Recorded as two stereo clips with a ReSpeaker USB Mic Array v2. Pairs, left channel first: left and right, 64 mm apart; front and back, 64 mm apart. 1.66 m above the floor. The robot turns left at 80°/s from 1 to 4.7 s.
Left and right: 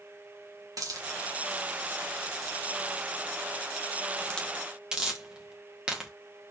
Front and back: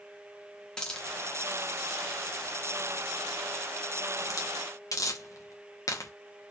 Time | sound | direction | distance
0.8 | a hiss | 75° right | 1.3 m